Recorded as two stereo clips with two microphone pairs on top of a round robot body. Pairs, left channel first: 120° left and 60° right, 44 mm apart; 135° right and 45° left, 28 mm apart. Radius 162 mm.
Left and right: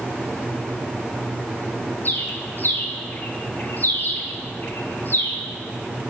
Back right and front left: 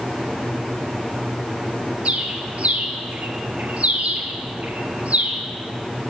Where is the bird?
80° left, 2 m.